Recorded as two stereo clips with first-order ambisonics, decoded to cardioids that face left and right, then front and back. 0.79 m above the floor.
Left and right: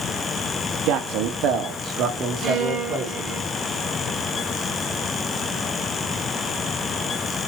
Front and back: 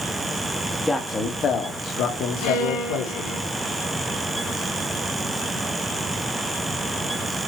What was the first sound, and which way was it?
A man speaking, 80° right.